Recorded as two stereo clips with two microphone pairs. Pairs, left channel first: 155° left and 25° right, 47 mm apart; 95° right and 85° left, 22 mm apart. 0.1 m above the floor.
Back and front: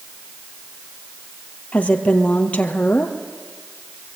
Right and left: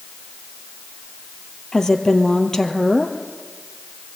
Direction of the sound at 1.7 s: 150° right.